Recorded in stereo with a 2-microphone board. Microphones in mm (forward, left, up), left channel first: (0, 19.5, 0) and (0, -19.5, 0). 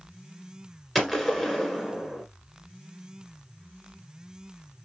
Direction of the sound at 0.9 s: 5° left (ahead or behind).